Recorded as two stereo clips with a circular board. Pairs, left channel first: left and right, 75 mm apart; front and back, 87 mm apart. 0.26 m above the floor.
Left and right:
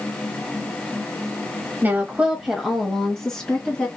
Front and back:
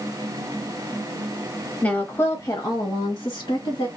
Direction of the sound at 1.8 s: 60° right.